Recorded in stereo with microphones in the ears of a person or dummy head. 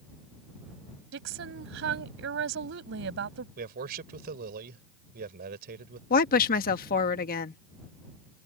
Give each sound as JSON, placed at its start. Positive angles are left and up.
{"t": 1.1, "sound": "a woman speaking", "side_deg": -70}
{"t": 3.6, "sound": "a man speaking", "side_deg": -55}
{"t": 6.1, "sound": "a woman speaking", "side_deg": 45}